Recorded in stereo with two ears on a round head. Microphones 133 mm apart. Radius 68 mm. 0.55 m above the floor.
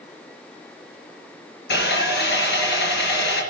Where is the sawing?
90° left, 4 m.